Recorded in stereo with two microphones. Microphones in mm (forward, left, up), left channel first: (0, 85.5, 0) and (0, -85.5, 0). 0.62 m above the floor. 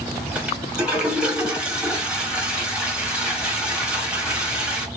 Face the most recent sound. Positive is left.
turn(degrees=-5)  # may be behind; listen again after turning